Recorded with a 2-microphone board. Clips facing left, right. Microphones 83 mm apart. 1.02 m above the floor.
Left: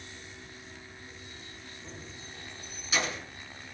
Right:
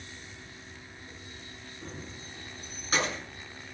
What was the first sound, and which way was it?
Keys jangling, 55° right (ahead or behind).